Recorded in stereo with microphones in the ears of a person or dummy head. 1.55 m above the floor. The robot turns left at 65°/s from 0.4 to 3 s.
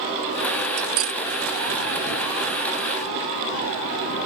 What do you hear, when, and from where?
0.8 s cutlery clinking: 55° right (ahead or behind); by 1.2 s 30° right (ahead or behind)